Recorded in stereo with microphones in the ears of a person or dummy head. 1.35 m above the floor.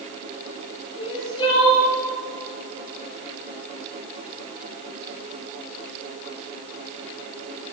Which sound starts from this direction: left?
Crying, at 1.0 s.